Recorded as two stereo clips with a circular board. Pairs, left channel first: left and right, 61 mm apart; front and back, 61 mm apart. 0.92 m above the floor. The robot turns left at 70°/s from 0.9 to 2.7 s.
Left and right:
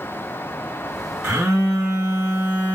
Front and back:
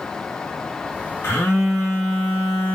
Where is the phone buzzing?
55° right, 2.5 m; by 2.8 s 155° right, 2.5 m.